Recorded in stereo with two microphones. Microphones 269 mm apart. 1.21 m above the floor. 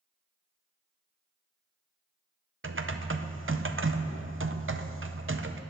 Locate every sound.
2.6 s typing on a keyboard: 50° right (ahead or behind), 0.7 m